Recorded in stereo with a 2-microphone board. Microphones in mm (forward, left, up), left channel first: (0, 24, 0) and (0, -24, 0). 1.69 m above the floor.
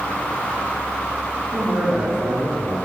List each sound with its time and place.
1.5 s a man speaking: 70° right (ahead or behind), 1.9 m; by 2.7 s 75° right (ahead or behind), 3.5 m